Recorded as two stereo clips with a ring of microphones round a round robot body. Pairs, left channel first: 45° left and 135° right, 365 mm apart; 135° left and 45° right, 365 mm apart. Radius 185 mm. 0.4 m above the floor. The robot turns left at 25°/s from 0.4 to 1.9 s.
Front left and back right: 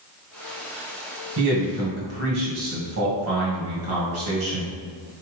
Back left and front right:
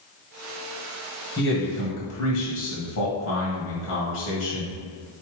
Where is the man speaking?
170° right, 1.9 m; by 4.7 s straight behind, 1.9 m.